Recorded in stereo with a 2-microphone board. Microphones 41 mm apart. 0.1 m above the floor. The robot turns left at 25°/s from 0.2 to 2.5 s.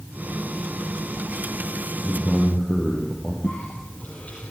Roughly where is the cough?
Left.